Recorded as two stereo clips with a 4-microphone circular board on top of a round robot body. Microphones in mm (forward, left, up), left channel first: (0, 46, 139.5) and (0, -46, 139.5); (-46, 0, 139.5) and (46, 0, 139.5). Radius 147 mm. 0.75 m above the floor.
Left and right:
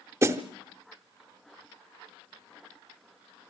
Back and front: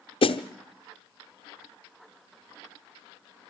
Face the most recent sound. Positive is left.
turn(degrees=-150)